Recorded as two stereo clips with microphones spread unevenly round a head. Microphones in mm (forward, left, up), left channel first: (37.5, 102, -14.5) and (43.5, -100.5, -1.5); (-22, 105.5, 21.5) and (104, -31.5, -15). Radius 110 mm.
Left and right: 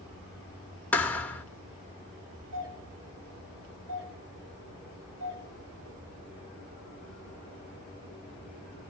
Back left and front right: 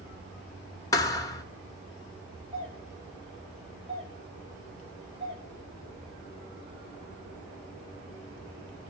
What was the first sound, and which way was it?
A thud, 175° left.